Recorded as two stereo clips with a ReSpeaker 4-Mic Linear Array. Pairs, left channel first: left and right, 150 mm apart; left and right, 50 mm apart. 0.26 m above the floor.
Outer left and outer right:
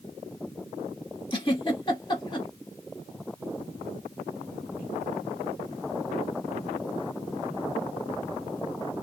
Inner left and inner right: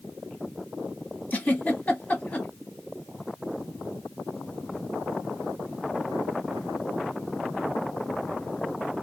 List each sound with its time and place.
1.3 s a giggle: 30° left (ahead or behind), 0.9 m